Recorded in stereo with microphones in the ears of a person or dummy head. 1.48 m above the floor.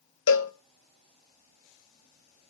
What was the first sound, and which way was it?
A cowbell, 75° left (ahead or behind).